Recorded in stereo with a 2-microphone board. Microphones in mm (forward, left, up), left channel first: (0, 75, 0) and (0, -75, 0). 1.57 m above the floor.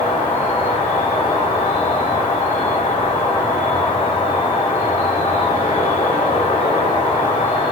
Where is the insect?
45° left (ahead or behind), 1.3 m.